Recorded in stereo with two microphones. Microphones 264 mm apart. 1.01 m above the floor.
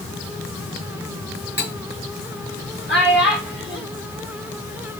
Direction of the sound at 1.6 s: 45° left (ahead or behind).